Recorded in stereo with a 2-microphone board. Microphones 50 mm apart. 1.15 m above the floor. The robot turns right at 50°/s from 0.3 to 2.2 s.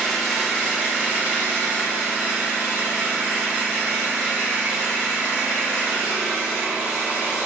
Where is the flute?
No flute in this recording.